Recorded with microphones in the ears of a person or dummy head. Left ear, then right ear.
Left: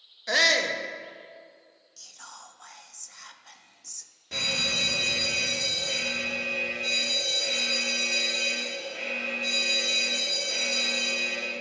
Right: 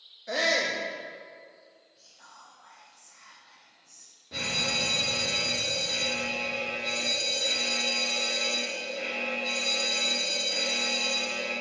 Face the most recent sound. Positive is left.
turn(degrees=70)  # may be behind; listen again after turning